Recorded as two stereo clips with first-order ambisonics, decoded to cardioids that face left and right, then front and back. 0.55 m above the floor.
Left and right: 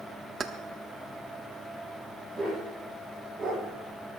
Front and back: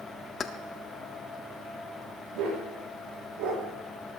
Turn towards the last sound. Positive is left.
turn(degrees=-170)